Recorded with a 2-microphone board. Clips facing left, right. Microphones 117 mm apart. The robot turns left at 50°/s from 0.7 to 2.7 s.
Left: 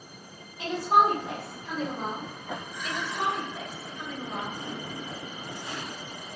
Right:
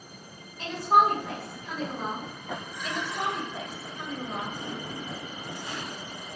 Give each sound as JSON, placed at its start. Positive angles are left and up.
{"t": 0.6, "sound": "a woman speaking", "side_deg": 10, "distance_m": 1.4}
{"t": 2.8, "sound": "a woman speaking", "side_deg": -45, "distance_m": 1.4}